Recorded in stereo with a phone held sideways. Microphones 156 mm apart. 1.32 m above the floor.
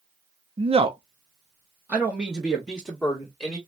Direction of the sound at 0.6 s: 40° right (ahead or behind).